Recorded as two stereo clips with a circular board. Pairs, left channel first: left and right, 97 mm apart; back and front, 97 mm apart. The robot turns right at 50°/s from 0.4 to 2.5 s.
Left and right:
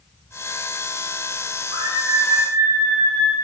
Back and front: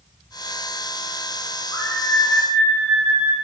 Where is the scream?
125° right, 7.5 m; by 3.3 s 85° right, 7.5 m.